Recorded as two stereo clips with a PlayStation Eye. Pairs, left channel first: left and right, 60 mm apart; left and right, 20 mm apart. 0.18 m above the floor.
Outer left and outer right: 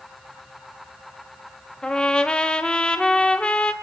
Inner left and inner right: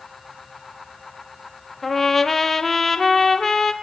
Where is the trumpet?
15° left (ahead or behind), 1.6 m.